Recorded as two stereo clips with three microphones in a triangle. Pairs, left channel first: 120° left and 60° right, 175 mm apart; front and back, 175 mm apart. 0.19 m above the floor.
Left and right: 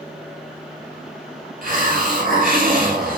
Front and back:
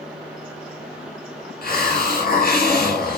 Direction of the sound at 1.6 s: 25° right.